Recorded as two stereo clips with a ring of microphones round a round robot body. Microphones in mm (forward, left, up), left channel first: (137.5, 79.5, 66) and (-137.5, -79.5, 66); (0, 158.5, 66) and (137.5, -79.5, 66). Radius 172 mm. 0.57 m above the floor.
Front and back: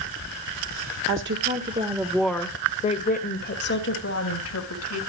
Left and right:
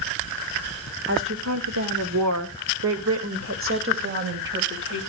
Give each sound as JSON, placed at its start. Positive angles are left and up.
{"t": 1.1, "sound": "a woman speaking", "azimuth_deg": -105, "distance_m": 1.9}